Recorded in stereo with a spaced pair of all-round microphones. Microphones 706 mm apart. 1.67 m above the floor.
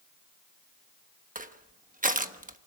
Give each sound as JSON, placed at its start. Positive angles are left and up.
{"t": 1.4, "sound": "crushing", "side_deg": -10, "distance_m": 1.0}